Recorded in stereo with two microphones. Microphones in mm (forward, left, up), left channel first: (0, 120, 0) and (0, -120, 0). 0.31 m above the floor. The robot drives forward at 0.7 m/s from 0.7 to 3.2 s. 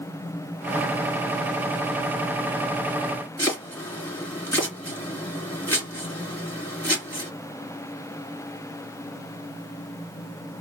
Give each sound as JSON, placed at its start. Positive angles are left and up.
{"t": 3.4, "sound": "chopping", "side_deg": 10, "distance_m": 3.0}